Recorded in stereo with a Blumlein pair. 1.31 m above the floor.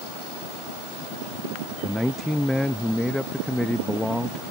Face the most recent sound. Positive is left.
turn(degrees=5)